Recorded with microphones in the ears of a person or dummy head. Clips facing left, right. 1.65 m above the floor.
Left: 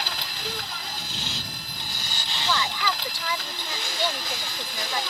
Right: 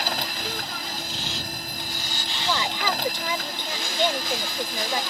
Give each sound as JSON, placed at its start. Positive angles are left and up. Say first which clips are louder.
{"t": 0.0, "sound": "a machine running", "louder": "right 5 dB", "side_deg": -45}
{"t": 2.5, "sound": "a woman speaking", "louder": "right 1 dB", "side_deg": -20}